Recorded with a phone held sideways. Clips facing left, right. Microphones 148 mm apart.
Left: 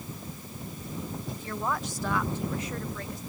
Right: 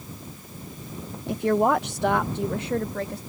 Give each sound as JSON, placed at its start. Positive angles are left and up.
{"t": 1.3, "sound": "a woman speaking", "side_deg": -70}